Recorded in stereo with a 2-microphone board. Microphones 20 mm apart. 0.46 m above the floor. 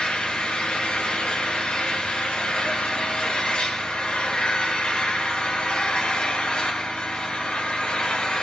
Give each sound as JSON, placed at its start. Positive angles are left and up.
{"t": 0.0, "sound": "an engine running", "side_deg": 80, "distance_m": 5.5}